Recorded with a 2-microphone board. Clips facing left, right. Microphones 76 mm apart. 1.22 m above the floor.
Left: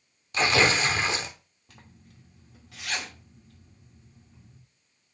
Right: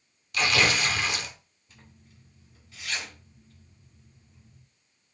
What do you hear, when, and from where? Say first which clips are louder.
0.3 s tearing paper: left 2 dB; 30° left (ahead or behind), 0.9 m
1.7 s a zipper: left 2 dB; 70° left (ahead or behind), 2 m